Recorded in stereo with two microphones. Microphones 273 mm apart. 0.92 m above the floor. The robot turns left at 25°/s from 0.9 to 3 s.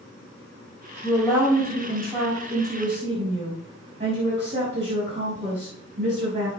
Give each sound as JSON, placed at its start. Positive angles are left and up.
{"t": 1.0, "sound": "a woman speaking", "azimuth_deg": 5, "distance_m": 4.0}